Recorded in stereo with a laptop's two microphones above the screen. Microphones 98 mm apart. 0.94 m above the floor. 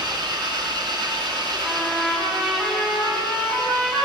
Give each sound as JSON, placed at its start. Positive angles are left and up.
{"t": 0.0, "sound": "an engine running", "side_deg": -45, "distance_m": 3.0}
{"t": 1.6, "sound": "a trumpet", "side_deg": -15, "distance_m": 6.0}